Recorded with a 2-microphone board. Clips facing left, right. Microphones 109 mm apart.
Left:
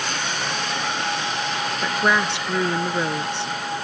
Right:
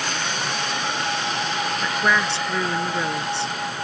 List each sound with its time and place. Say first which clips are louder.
1.8 s a woman speaking: left 2 dB; 15° left (ahead or behind)